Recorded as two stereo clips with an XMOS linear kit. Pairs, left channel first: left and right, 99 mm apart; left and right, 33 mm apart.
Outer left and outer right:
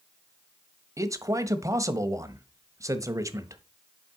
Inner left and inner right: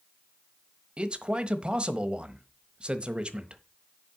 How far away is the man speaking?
About 1.2 m.